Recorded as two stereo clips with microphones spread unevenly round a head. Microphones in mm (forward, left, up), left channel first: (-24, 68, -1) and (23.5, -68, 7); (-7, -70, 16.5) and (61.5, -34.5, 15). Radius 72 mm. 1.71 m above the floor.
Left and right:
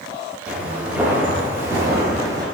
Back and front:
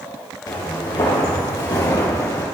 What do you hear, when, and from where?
0.5 s footsteps: 150° right, 3 m; by 2.5 s 125° right, 2.5 m